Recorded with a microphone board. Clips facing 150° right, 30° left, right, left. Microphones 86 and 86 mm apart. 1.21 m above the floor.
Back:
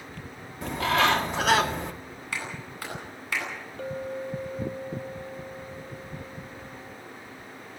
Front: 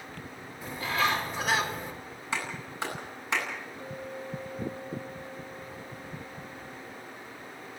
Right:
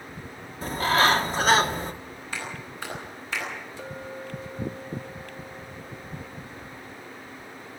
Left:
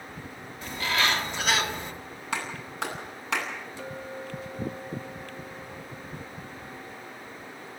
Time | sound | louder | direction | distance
0.6 | a bird | back 5 dB, right 6 dB | 140° right | 1.6 m
2.3 | a clap | front 2 dB, left 3 dB | 95° left | 10 m
3.8 | a clink | back 6 dB, right 1 dB | 165° right | 1.2 m